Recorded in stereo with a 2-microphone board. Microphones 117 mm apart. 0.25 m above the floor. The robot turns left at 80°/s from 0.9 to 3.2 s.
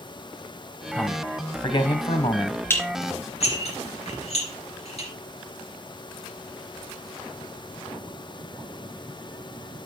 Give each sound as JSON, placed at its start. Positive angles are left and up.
{"t": 0.9, "sound": "a man speaking", "azimuth_deg": 175, "distance_m": 1.4}
{"t": 2.7, "sound": "dishes clattering", "side_deg": 20, "distance_m": 2.5}